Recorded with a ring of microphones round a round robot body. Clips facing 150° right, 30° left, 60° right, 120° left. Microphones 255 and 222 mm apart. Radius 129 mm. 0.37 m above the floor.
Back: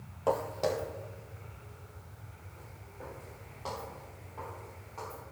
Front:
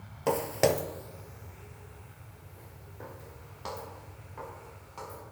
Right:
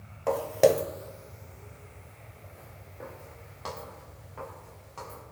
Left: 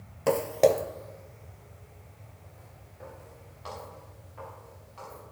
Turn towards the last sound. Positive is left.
turn(degrees=-30)